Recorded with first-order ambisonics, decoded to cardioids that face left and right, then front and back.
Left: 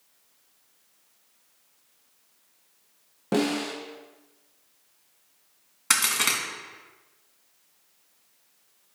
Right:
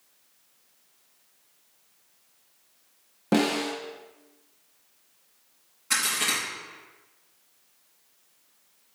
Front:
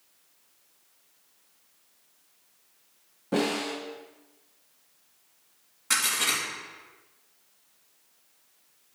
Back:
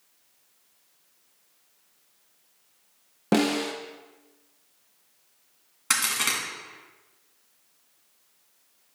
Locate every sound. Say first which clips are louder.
3.3 s a snare drum: right 1 dB, back 3 dB; 170° right, 1.0 m
5.9 s a crack: left 2 dB, even; 115° left, 2 m